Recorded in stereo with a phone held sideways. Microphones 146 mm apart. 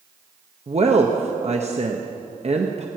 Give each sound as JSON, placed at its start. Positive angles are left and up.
{"t": 0.7, "sound": "a woman speaking", "side_deg": -45, "distance_m": 1.0}